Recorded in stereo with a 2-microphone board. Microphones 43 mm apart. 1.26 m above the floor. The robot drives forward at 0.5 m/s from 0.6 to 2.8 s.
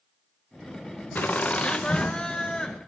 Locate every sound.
1.1 s laughter: 40° left (ahead or behind), 0.6 m; by 2.8 s 15° left (ahead or behind), 1.3 m